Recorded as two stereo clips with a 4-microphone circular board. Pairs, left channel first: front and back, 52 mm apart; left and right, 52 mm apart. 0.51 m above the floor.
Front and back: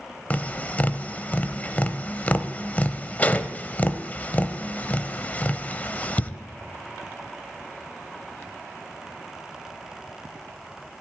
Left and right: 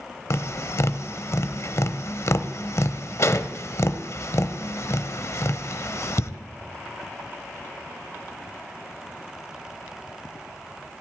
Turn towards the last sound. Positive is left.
turn(degrees=65)